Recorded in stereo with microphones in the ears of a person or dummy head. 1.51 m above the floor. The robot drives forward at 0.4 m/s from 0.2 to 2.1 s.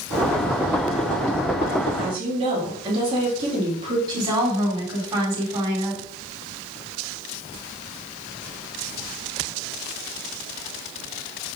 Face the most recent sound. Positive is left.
turn(degrees=-25)  # may be behind; listen again after turning